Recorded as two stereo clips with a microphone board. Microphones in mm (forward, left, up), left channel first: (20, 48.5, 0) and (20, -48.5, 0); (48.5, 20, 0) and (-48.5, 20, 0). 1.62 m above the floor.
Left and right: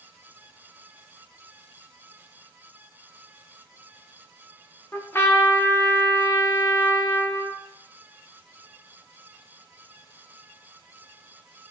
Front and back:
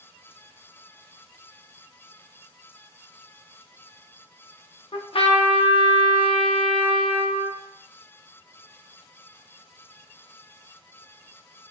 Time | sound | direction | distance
4.9 | a trumpet | 25° left | 0.5 m